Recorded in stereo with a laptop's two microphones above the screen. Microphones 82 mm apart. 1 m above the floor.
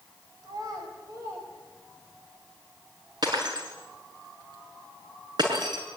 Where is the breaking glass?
60° right (ahead or behind), 5.5 m.